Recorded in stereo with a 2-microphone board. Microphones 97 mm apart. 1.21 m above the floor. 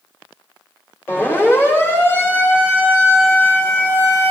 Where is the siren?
25° left (ahead or behind), 4.5 m.